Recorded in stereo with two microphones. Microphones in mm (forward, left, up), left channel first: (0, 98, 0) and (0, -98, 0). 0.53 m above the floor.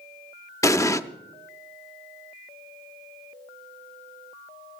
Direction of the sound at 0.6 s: 15° left (ahead or behind).